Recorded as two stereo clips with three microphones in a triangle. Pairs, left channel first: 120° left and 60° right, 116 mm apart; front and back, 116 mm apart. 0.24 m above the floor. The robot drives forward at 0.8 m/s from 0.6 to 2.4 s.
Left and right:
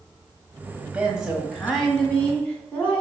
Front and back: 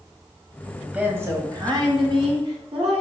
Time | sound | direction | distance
0.8 | a woman speaking | 100° right | 1.0 m